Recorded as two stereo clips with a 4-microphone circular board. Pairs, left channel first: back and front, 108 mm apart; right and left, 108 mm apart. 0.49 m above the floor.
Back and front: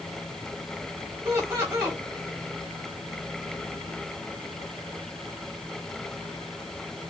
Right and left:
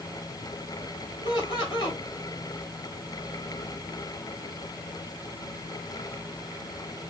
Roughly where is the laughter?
Ahead right.